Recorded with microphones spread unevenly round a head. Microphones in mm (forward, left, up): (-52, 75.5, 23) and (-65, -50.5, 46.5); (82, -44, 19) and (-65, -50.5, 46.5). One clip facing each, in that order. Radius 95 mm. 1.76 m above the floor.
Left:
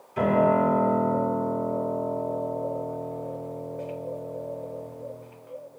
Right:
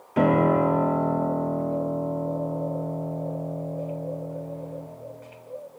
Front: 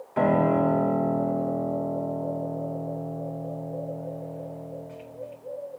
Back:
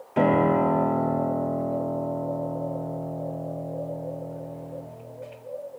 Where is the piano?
115° right, 0.8 m.